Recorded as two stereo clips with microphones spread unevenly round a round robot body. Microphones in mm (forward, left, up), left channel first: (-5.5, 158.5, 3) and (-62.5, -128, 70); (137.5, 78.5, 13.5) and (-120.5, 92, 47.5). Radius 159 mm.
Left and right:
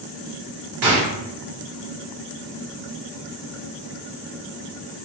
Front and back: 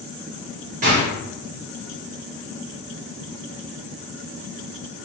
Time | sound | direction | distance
0.8 | a gunshot | 125° right | 1.2 m